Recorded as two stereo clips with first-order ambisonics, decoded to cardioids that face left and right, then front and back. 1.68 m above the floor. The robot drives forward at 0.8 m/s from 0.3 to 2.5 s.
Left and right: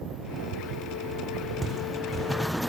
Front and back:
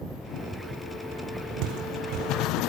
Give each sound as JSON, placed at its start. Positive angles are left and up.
{"t": 1.6, "sound": "footsteps", "azimuth_deg": -165, "distance_m": 4.5}